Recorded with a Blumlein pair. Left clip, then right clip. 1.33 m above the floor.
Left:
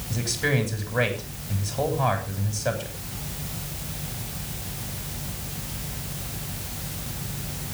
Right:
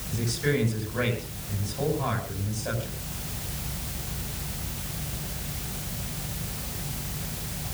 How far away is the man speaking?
About 7 m.